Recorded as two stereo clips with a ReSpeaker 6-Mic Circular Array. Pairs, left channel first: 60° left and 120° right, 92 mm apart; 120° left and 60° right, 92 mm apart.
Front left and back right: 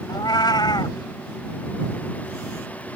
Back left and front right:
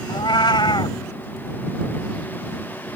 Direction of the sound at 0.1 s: 95° left.